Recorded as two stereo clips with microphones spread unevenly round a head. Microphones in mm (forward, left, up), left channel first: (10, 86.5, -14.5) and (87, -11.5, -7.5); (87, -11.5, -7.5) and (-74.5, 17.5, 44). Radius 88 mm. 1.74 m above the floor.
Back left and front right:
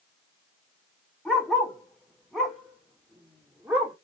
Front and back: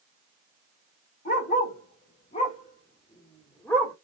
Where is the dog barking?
40° left, 1.9 m; by 4.0 s 115° right, 1.4 m.